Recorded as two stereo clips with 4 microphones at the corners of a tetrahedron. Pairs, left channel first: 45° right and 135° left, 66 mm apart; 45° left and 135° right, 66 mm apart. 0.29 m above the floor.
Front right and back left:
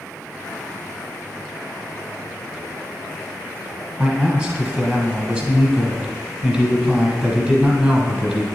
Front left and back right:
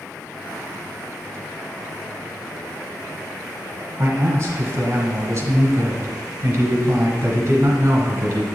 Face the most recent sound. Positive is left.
turn(degrees=-160)